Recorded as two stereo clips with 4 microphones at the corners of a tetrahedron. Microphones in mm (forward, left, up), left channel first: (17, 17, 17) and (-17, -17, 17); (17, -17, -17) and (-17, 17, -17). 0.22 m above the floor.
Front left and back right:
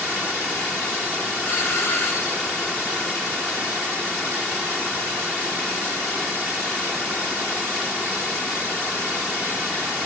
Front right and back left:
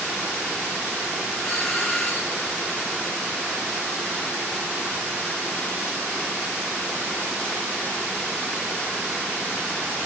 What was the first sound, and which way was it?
A doorbell, 40° left.